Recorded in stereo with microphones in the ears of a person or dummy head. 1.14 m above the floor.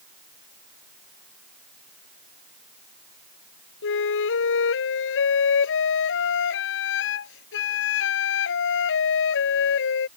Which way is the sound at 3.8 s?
70° left (ahead or behind).